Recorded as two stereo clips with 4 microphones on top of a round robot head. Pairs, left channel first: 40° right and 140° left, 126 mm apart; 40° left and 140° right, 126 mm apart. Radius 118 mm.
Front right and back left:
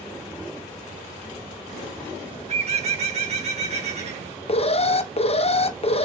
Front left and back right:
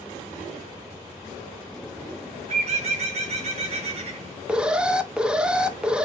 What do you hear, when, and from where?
2.5 s a bird: straight behind, 3.5 m
4.5 s an alarm: 60° right, 1.4 m